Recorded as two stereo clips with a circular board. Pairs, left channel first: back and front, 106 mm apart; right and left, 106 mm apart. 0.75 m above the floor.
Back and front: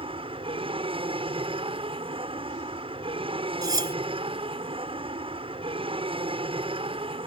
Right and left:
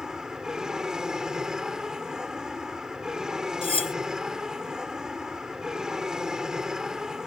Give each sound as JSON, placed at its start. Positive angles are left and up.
{"t": 0.0, "sound": "an aircraft", "azimuth_deg": 5}
{"t": 3.6, "sound": "cutlery clinking", "azimuth_deg": -55}